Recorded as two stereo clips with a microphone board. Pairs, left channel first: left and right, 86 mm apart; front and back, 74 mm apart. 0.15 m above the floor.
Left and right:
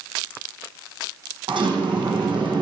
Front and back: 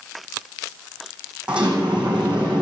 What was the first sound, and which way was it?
A sliding door, 105° right.